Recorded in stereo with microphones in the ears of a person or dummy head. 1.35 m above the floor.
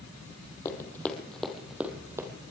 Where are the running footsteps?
15° left (ahead or behind), 2.5 m; by 2.3 s 20° right (ahead or behind), 2 m.